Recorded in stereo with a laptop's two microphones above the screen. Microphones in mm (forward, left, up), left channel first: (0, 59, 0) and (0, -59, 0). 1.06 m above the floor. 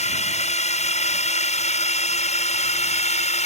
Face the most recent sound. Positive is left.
turn(degrees=70)  # may be behind; listen again after turning